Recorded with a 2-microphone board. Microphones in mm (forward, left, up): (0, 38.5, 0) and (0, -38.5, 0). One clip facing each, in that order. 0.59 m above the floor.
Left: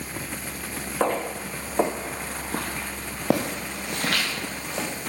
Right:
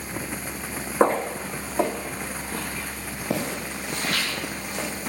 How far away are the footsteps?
About 1.7 m.